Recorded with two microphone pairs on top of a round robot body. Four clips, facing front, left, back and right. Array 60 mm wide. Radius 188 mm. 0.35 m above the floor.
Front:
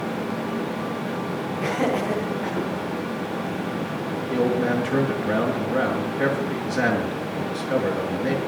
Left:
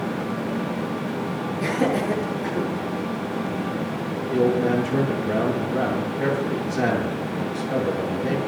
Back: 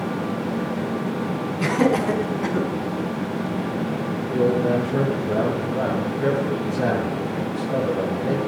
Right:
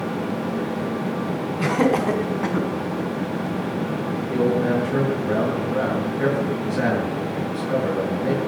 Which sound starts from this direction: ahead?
A man speaking, at 4.3 s.